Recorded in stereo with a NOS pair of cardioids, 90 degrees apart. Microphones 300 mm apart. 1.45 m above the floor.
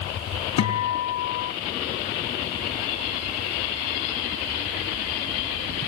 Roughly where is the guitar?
Ahead left.